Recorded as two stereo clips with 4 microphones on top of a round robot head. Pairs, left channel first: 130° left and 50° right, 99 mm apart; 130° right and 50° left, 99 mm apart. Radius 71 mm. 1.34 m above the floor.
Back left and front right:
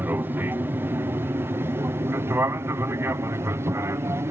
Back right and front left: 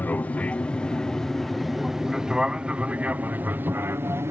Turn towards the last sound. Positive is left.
turn(degrees=0)